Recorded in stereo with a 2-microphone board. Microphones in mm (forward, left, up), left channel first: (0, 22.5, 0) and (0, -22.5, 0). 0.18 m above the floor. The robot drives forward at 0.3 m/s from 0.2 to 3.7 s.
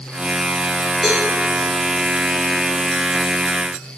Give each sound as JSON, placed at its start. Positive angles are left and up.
{"t": 1.0, "sound": "a cowbell", "side_deg": -5, "distance_m": 3.5}